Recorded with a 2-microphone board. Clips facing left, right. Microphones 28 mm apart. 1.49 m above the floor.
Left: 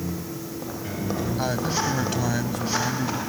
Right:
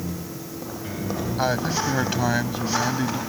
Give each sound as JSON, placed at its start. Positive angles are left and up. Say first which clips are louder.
{"t": 1.4, "sound": "a man speaking", "louder": "right 4 dB", "side_deg": -15}